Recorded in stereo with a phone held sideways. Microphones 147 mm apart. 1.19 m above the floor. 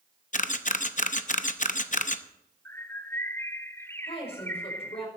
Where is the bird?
15° left (ahead or behind), 0.6 m.